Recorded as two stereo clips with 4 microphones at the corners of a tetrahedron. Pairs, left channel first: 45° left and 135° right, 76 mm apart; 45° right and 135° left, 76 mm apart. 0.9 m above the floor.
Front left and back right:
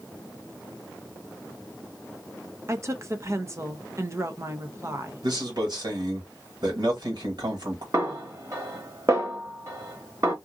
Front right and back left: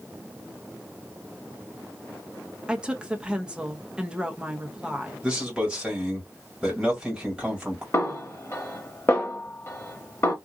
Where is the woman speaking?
155° right, 0.7 m.